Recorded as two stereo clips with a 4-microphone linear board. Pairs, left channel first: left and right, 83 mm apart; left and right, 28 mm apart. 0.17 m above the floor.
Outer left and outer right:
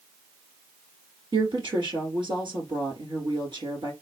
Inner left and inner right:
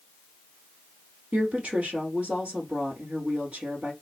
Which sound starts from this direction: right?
A woman speaking, at 1.3 s.